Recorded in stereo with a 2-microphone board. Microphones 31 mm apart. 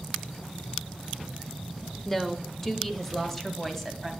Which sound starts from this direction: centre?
A woman speaking, at 2.0 s.